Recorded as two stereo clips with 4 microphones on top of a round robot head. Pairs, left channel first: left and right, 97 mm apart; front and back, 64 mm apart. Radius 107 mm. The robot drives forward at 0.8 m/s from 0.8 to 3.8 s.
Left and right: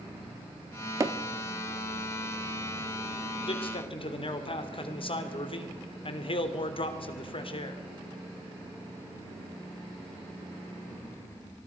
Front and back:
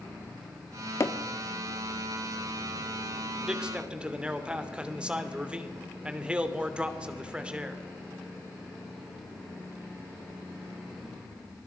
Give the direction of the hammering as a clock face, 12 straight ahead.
1 o'clock.